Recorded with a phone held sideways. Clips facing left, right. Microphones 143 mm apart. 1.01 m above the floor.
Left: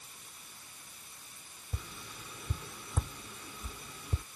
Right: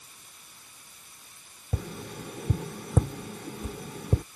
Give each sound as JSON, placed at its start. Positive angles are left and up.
{"t": 1.7, "sound": "tapping", "side_deg": -65}